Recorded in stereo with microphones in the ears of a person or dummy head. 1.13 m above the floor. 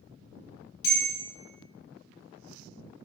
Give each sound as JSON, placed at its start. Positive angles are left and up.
{"t": 0.8, "sound": "a bell", "side_deg": 70, "distance_m": 1.2}